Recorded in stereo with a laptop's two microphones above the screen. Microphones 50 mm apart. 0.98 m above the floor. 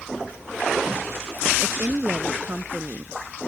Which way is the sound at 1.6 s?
50° right (ahead or behind).